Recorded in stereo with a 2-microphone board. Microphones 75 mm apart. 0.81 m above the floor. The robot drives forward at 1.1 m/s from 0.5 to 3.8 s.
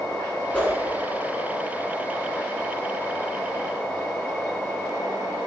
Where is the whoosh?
15° left (ahead or behind), 2.0 m; by 0.7 s 20° left (ahead or behind), 1.8 m.